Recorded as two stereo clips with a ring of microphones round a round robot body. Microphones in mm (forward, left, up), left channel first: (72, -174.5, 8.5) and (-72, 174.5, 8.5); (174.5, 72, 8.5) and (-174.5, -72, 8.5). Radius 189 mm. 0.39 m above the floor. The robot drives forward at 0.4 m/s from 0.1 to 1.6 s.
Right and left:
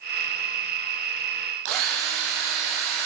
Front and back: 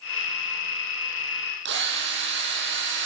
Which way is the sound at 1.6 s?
140° left.